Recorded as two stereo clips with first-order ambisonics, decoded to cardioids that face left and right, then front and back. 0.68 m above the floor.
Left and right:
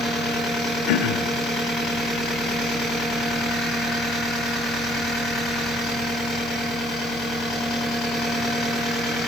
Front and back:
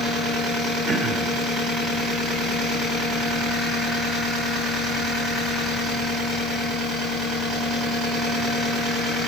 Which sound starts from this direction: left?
Throat clearing, at 0.9 s.